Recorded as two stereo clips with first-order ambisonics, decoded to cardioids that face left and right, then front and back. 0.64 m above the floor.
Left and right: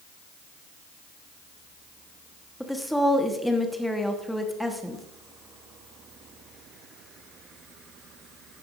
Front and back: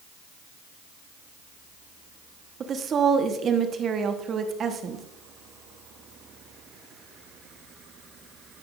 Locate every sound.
2.6 s a woman speaking: straight behind, 1.1 m